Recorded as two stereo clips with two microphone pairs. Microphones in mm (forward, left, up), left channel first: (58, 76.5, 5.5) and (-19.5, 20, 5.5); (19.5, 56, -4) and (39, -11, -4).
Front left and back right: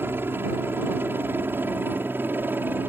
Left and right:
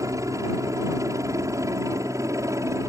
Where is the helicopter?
85° right.